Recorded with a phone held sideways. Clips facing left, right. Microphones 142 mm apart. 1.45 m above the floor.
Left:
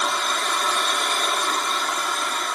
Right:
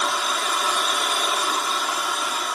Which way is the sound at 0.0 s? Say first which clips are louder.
Even; 5° right (ahead or behind).